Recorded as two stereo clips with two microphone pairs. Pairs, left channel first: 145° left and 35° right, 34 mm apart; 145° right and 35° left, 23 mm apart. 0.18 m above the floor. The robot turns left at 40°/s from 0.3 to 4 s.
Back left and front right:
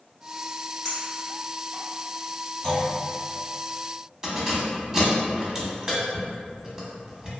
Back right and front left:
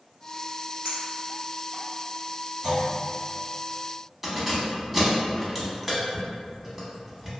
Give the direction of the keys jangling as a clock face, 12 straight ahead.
1 o'clock.